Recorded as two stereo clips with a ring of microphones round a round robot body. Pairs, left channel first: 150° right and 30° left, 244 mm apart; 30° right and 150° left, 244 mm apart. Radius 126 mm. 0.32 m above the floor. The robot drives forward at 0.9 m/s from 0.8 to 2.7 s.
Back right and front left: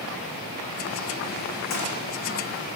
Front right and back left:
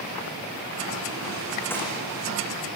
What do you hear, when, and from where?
1.7 s a gunshot: 110° right, 10 m; by 1.9 s 115° right, 10 m